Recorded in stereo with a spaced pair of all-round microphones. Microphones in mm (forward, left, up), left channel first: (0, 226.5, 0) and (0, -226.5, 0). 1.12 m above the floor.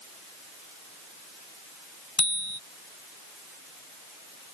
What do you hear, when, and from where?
2.2 s a bicycle bell: 35° left (ahead or behind)